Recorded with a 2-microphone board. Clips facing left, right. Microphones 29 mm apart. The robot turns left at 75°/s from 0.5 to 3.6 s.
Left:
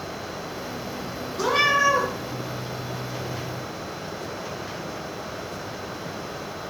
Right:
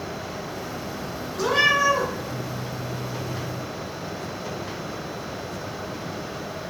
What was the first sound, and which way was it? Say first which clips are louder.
A cat meowing: right 1 dB; 170° left.